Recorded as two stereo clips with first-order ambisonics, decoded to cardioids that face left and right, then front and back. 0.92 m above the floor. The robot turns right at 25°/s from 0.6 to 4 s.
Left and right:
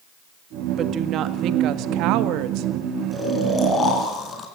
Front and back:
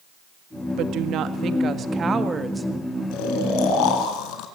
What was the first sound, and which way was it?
A woman speaking, 145° right.